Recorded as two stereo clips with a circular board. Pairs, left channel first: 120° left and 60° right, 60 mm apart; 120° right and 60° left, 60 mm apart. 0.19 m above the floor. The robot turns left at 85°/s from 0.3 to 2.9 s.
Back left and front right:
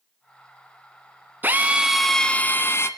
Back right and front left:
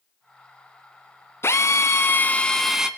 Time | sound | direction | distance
1.4 | a drill | 105° right | 1.1 m